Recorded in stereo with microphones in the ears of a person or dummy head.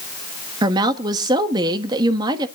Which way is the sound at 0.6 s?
25° right (ahead or behind).